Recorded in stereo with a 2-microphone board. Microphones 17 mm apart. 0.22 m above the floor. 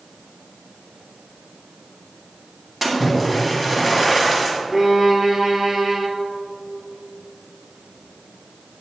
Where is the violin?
15° right (ahead or behind), 0.8 m.